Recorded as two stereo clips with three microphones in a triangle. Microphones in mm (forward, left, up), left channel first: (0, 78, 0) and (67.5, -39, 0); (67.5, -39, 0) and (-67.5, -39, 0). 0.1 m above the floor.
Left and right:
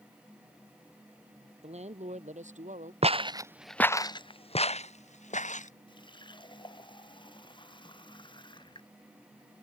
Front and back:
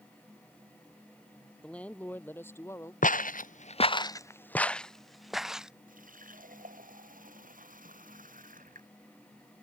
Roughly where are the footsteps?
Ahead.